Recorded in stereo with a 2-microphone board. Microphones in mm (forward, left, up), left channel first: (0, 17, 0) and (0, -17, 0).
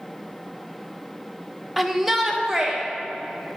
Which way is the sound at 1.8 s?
Centre (ahead or behind).